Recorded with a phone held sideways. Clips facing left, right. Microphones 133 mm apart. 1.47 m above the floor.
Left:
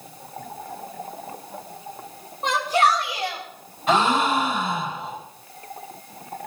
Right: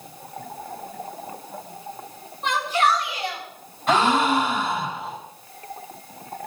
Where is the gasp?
5° left (ahead or behind), 4 m.